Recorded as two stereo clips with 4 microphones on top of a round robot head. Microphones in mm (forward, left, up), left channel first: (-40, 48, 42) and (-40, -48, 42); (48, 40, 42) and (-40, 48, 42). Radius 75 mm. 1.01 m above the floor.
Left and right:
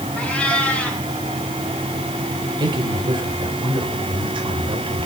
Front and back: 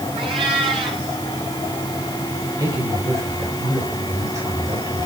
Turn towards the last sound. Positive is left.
turn(degrees=-125)